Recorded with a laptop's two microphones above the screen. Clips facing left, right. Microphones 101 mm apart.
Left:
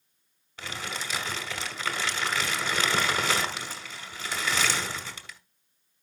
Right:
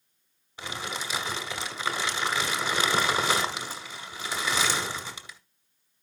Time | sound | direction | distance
0.6 | crumpling | 15° right (ahead or behind) | 1.2 m